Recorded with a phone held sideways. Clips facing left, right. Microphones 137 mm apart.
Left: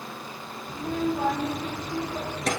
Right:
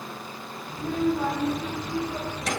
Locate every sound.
0.7 s a child speaking: 90° left, 4 m; by 2.5 s 55° left (ahead or behind), 5 m